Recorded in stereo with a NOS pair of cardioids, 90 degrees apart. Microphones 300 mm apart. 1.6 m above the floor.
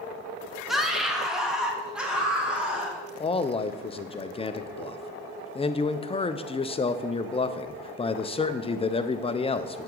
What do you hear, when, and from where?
0.7 s a scream: straight ahead, 1.6 m; by 3.0 s 5° right, 3.5 m
3.2 s a man speaking: 20° left, 0.6 m